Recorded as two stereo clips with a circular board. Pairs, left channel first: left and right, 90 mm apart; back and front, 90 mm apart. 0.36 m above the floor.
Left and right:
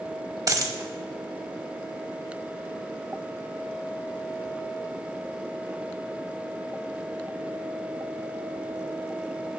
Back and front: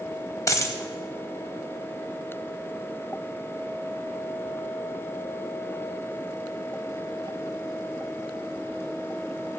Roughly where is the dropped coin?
Behind right.